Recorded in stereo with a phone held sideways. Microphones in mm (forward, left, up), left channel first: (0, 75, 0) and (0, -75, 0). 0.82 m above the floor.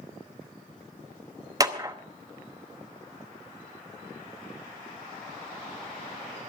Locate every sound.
1.6 s a clap: 25° right (ahead or behind), 0.9 m